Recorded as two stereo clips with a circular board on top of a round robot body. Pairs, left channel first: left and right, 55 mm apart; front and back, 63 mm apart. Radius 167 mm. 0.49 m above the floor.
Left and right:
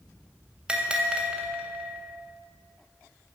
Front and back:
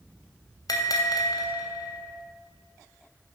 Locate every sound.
0.7 s a bell: 20° right, 3.5 m